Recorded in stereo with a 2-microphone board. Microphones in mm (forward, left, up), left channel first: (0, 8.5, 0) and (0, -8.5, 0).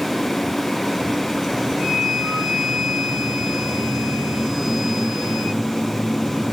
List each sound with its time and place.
1.8 s a flute: 40° right (ahead or behind), 7.5 m